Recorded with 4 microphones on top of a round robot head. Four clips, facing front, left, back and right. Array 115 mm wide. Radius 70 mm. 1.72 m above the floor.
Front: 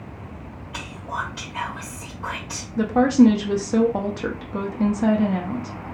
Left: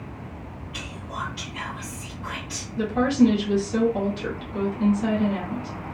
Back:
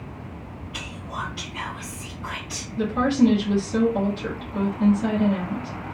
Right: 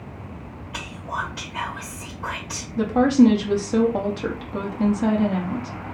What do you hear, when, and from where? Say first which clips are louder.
0.7 s whispering: right 5 dB, front 4 dB; 45° right, 1.7 m
2.8 s a woman speaking: right 4 dB, front 4 dB; 35° right, 1.1 m